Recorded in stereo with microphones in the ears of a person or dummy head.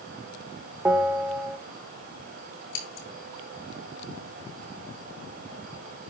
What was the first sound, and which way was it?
A bell, 15° right (ahead or behind).